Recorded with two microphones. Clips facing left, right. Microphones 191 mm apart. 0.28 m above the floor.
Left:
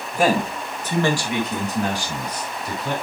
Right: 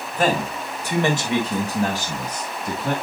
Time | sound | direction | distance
0.1 | a man speaking | 10° left (ahead or behind) | 1.7 m